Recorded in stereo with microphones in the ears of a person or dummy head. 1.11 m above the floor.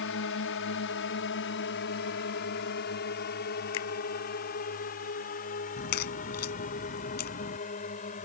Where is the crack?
50° left (ahead or behind).